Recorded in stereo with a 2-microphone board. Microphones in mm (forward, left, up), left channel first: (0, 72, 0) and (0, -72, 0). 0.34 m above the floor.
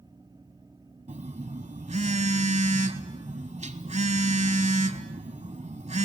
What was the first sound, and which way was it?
A phone buzzing, 55° right (ahead or behind).